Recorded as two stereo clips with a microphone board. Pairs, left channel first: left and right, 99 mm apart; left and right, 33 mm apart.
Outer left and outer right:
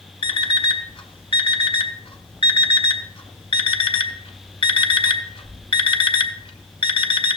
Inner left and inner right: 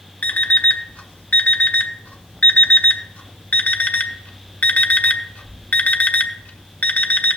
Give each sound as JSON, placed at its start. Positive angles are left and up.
{"t": 0.2, "sound": "an alarm clock", "side_deg": 60, "distance_m": 0.9}